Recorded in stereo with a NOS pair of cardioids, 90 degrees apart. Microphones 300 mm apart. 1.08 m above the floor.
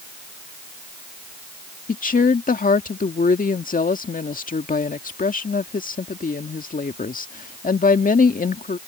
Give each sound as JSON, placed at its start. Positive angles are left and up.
{"t": 1.9, "sound": "a woman speaking", "azimuth_deg": 25}